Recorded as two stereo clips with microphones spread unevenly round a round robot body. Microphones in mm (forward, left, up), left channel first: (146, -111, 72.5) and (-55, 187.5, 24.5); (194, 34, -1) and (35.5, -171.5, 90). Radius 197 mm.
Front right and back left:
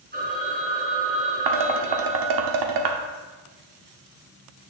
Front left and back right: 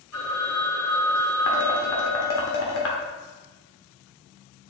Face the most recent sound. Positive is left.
turn(degrees=95)